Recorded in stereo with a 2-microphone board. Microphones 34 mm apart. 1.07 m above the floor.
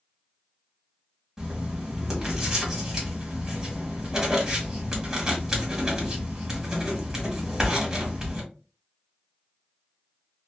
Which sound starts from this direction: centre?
Writing, at 1.4 s.